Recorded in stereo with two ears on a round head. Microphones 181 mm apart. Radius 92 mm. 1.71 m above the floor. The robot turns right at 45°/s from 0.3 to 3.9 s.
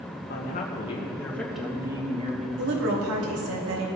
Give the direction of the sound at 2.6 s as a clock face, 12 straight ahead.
4 o'clock.